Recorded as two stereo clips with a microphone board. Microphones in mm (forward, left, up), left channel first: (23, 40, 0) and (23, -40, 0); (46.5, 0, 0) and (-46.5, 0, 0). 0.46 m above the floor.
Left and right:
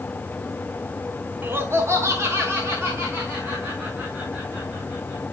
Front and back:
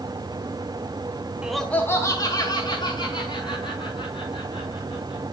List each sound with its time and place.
1.4 s laughter: 115° right, 0.9 m; by 5.2 s 30° right, 6 m